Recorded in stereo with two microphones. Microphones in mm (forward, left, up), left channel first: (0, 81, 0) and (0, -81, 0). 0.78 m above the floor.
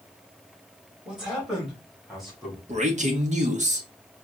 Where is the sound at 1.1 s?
5° right (ahead or behind), 2 m; by 2.6 s centre (ahead or behind), 3 m.